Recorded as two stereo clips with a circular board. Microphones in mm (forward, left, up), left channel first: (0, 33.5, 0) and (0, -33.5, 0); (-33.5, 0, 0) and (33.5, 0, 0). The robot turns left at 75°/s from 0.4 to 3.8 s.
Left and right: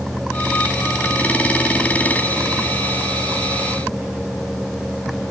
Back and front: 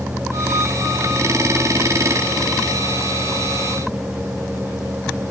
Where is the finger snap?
I don't hear a finger snap.